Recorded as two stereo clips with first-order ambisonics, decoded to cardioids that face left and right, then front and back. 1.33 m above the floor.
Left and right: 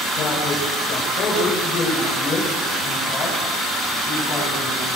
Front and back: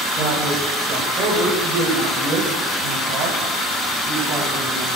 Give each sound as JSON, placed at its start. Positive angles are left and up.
{"t": 0.2, "sound": "a man speaking", "azimuth_deg": 135, "distance_m": 7.5}